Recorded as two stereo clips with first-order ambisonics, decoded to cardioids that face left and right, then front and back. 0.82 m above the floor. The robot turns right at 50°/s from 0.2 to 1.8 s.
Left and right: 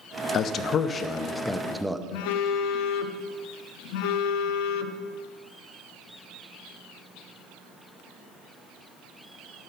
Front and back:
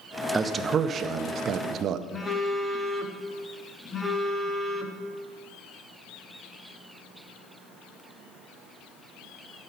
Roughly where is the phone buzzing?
Left.